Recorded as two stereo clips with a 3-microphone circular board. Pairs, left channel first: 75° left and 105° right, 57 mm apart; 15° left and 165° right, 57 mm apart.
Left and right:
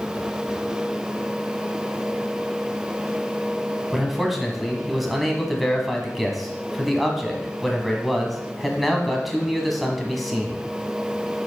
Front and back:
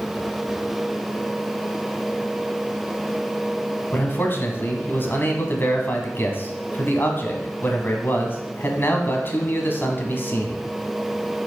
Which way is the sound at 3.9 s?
15° right.